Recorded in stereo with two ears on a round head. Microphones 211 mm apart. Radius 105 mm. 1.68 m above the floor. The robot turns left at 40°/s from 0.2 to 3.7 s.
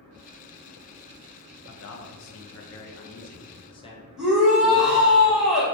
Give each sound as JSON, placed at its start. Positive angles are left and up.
{"t": 1.7, "sound": "a man speaking", "azimuth_deg": 105, "distance_m": 0.6}
{"t": 4.2, "sound": "a shout", "side_deg": 0, "distance_m": 1.3}